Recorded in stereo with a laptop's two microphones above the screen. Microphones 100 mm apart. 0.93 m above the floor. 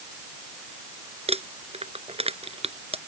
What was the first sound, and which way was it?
Crumpling, 90° right.